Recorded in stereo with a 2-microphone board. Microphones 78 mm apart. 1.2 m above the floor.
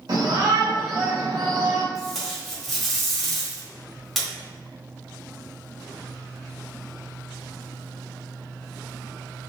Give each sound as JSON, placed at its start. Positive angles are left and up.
{"t": 0.1, "sound": "a shout", "side_deg": -65, "distance_m": 1.7}
{"t": 1.9, "sound": "tape being pulled", "side_deg": 0, "distance_m": 1.3}